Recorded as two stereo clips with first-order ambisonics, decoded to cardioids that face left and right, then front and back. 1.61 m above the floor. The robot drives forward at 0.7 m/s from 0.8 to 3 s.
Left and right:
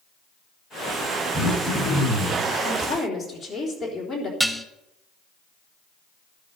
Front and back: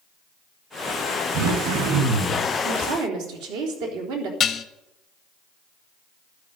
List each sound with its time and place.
1.3 s throat clearing: 170° right, 7.5 m
2.6 s a woman speaking: straight behind, 3.5 m
4.4 s dishes clattering: 20° right, 0.8 m